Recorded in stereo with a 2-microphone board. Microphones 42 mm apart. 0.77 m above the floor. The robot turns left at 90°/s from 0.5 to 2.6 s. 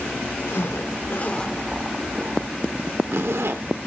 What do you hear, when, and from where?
0.5 s a zipper: 75° left (ahead or behind), 0.9 m; by 3.6 s 80° right, 0.9 m